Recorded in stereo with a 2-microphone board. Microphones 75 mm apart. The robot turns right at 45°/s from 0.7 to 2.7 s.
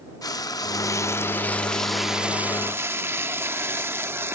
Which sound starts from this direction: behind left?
Frying, at 0.2 s.